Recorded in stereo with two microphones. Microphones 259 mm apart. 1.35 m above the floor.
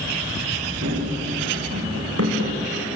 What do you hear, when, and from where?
0.8 s running footsteps: 75° right (ahead or behind), 7.5 m; by 2.6 s 80° right, 6.5 m